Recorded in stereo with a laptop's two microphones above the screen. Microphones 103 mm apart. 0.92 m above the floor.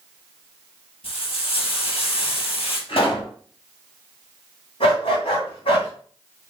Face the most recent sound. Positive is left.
turn(degrees=65)  # may be behind; listen again after turning